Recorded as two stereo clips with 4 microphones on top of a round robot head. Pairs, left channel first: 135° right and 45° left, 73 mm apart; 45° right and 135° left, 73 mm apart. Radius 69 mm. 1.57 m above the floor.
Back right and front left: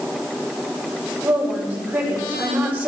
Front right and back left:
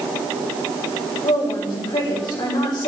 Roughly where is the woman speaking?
Ahead right.